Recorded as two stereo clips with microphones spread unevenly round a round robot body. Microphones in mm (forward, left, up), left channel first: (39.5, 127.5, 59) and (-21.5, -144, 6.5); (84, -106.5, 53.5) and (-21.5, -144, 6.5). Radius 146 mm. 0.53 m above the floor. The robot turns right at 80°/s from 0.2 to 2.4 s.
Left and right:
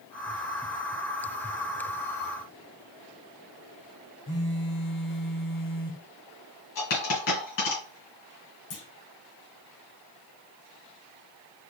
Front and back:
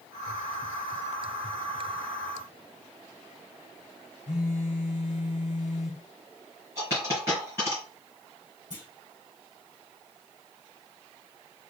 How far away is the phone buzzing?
About 0.7 m.